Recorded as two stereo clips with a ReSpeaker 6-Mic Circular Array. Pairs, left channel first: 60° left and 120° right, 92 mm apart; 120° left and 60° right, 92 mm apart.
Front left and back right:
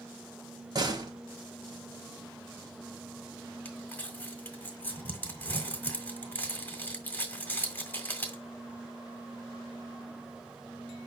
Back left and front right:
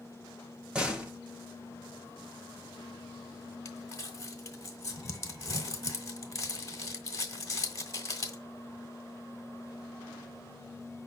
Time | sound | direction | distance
0.8 | a door slam | 135° right | 0.8 m
3.6 | crumpling | 115° left | 1.5 m